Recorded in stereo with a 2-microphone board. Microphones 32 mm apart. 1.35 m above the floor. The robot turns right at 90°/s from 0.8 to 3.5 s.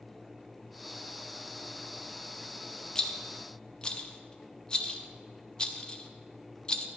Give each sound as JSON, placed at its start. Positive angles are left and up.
{"t": 3.0, "sound": "a rattle", "side_deg": 20, "distance_m": 0.8}